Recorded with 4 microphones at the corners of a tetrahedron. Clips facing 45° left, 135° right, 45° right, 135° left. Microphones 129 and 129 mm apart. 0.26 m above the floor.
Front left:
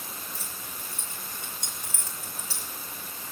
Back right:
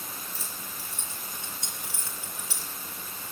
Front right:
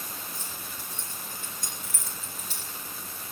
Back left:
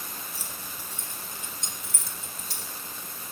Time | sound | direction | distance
0.3 | keys jangling | 50° left | 3.5 m